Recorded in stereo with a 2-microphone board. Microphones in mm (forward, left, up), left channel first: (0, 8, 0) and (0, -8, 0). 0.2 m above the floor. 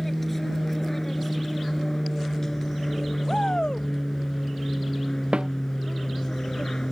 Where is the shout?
60° left (ahead or behind).